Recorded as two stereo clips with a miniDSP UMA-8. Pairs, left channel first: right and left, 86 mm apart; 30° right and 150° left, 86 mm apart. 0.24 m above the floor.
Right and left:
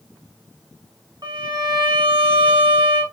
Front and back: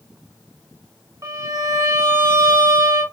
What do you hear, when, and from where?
1.2 s a violin: 110° left, 1.0 m